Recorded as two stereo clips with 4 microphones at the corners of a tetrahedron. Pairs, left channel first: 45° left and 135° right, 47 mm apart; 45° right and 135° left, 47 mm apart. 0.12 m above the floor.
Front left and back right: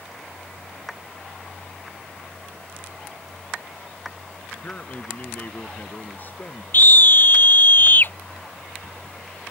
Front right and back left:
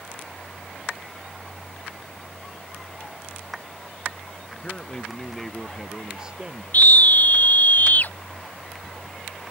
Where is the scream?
Straight ahead.